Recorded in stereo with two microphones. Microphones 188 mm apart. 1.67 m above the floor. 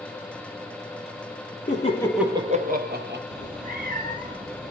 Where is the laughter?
45° left (ahead or behind), 0.7 m; by 3.2 s 65° right (ahead or behind), 1.2 m.